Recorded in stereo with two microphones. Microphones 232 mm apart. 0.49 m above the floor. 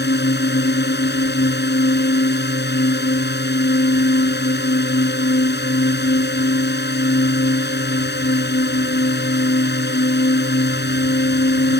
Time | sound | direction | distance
0.0 | a drone | 45° left (ahead or behind) | ?